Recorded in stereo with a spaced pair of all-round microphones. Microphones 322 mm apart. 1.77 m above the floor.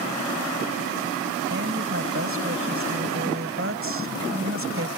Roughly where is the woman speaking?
Right.